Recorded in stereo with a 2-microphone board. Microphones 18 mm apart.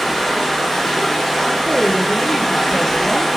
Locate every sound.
0.0 s running water: 15° left (ahead or behind), 1.8 m
1.6 s a woman speaking: 10° left (ahead or behind), 0.5 m